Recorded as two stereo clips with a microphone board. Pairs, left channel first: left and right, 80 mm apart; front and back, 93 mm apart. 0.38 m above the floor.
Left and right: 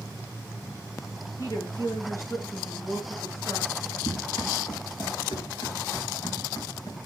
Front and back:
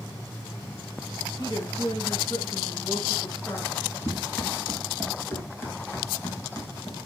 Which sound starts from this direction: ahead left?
A woman speaking, at 1.4 s.